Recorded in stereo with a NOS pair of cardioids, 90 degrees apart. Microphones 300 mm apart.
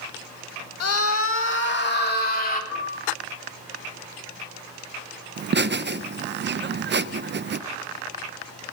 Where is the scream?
55° left, 1.6 m; by 2.6 s 30° left, 3 m.